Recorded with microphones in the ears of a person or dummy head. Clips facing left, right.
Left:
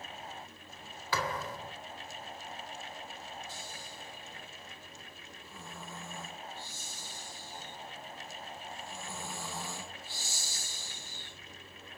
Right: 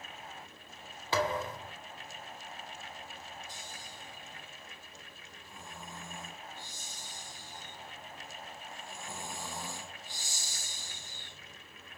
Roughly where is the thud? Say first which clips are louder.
Right 4 dB; right.